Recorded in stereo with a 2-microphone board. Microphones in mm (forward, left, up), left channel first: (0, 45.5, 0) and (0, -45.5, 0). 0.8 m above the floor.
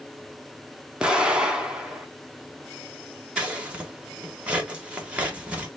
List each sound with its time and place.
1.0 s an explosion: 10° right (ahead or behind), 0.8 m
3.4 s scissors: 15° right (ahead or behind), 1.2 m